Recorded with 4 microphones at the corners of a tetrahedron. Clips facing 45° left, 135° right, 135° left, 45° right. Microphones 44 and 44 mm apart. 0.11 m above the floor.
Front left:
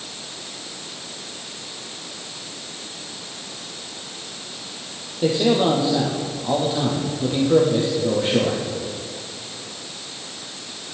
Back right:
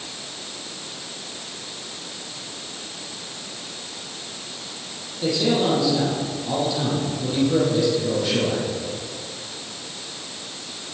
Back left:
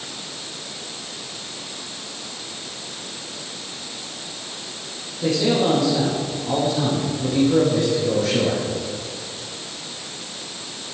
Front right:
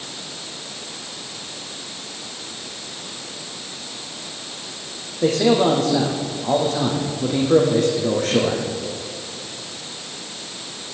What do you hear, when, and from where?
5.2 s a man speaking: 10° right, 4 m